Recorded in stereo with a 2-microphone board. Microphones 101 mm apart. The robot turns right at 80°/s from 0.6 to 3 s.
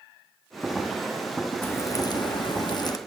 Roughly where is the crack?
Ahead.